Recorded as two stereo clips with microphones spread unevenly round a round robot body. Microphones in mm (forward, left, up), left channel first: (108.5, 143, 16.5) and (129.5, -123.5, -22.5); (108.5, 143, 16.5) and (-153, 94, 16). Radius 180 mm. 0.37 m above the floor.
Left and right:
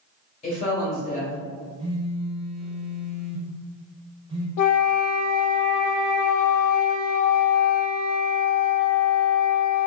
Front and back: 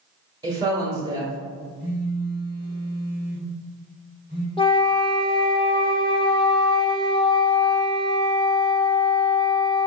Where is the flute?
85° left, 0.5 m.